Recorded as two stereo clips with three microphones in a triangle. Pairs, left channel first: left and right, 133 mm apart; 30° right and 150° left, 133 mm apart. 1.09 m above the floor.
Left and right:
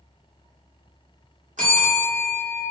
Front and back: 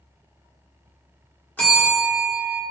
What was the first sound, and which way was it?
A bell, 110° right.